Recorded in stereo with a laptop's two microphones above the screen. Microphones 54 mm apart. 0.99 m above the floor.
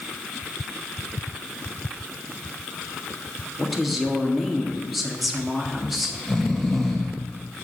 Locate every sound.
3.6 s a woman speaking: centre (ahead or behind), 1.7 m
5.7 s snoring: 5° left (ahead or behind), 1.3 m